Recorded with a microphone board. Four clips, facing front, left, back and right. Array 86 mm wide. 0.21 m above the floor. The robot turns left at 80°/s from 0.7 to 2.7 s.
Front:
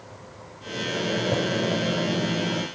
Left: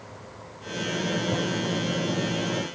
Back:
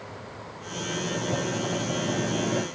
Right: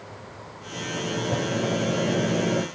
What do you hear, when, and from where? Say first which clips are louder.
0.7 s a microwave: left 2 dB, front 4 dB; 45° left, 4.5 m; by 2.6 s 110° right, 4.5 m